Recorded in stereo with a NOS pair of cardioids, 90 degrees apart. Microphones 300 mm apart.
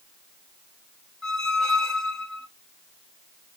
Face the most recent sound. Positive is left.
turn(degrees=0)